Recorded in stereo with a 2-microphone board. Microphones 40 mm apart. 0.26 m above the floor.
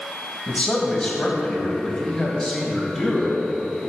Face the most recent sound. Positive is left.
turn(degrees=10)  # may be behind; listen again after turning